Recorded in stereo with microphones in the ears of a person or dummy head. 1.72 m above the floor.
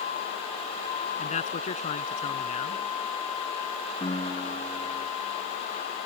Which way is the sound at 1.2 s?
35° left (ahead or behind).